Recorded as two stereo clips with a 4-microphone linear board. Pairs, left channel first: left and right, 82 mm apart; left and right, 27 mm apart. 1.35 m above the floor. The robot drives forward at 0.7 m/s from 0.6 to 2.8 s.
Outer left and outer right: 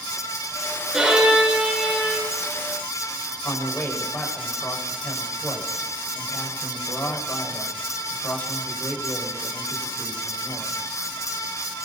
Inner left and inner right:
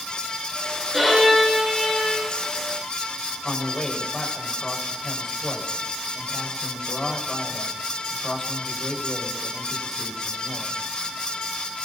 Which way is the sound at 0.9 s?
5° right (ahead or behind).